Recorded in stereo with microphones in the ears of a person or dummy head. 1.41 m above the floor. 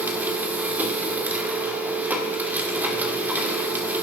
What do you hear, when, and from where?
0.0 s a machine running: 5° right (ahead or behind), 1.5 m